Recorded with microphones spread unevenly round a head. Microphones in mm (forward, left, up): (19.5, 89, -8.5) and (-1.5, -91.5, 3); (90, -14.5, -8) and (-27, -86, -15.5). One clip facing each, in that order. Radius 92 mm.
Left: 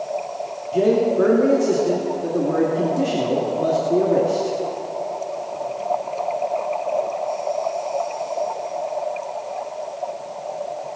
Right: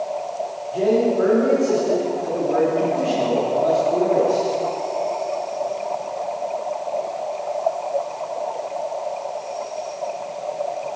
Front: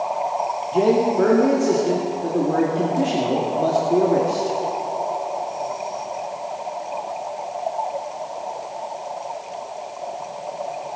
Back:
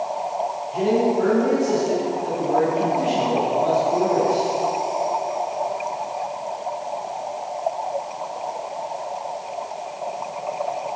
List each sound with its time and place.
0.7 s a man speaking: 50° left, 2 m